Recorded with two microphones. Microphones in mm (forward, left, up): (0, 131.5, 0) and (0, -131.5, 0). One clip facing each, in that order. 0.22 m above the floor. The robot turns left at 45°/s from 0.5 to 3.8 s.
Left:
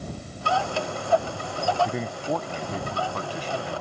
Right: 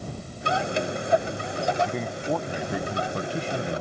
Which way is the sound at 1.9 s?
15° left.